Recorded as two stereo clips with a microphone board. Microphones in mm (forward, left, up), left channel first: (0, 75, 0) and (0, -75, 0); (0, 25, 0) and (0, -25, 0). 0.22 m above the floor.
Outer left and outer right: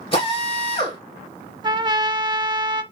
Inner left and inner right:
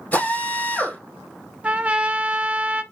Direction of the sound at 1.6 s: 30° right (ahead or behind).